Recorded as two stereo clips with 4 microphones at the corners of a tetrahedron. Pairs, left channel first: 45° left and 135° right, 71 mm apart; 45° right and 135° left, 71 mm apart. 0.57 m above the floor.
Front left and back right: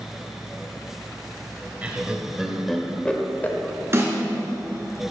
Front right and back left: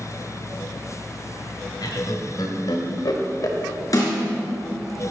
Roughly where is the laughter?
Ahead right.